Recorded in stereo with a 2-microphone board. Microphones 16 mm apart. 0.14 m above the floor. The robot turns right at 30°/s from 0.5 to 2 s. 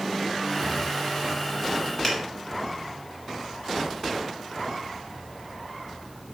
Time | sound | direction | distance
2.0 | a finger snap | 25° left (ahead or behind) | 1.5 m